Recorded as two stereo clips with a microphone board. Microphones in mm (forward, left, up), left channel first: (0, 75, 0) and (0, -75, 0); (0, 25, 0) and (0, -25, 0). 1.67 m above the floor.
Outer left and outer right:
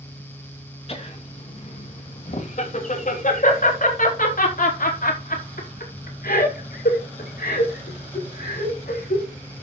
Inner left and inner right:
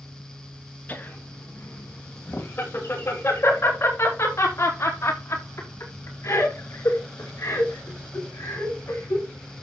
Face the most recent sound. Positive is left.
turn(degrees=80)